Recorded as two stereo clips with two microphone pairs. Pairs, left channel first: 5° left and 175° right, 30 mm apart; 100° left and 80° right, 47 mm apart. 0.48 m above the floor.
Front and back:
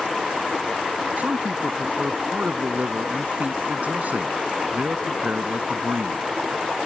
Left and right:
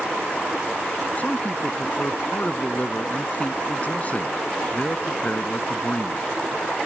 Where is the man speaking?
155° left.